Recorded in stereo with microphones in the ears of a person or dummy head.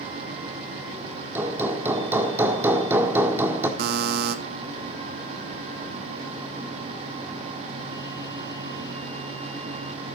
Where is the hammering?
15° right (ahead or behind), 1.7 m.